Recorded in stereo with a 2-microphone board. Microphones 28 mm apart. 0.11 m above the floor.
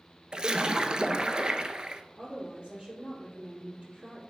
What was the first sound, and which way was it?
A splash, 35° right (ahead or behind).